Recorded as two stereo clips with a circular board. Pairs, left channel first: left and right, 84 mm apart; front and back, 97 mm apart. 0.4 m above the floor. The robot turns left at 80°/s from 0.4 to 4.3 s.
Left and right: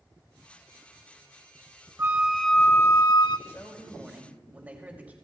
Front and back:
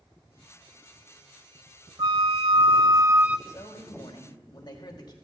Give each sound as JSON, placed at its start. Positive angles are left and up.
{"t": 2.0, "sound": "a flute", "azimuth_deg": -150, "distance_m": 0.6}
{"t": 3.5, "sound": "a man speaking", "azimuth_deg": 45, "distance_m": 2.5}